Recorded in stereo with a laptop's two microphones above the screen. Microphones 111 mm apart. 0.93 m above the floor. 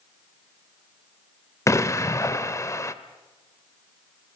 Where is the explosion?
25° left (ahead or behind), 0.8 m.